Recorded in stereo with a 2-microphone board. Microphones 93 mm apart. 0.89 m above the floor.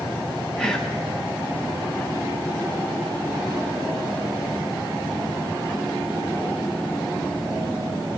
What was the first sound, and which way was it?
Whispering, 5° left (ahead or behind).